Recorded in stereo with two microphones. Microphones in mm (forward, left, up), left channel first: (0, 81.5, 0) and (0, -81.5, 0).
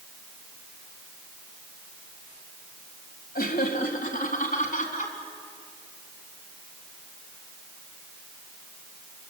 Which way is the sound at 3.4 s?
70° left (ahead or behind).